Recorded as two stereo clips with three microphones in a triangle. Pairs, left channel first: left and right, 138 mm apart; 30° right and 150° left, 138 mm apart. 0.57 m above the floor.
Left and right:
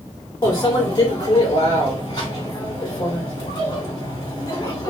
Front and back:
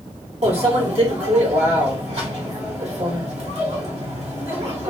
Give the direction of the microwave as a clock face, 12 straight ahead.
7 o'clock.